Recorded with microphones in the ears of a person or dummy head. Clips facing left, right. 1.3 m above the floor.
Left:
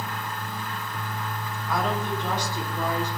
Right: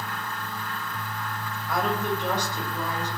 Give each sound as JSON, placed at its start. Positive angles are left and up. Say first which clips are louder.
{"t": 1.7, "sound": "a woman speaking", "louder": "right 1 dB", "side_deg": -85, "distance_m": 9.0}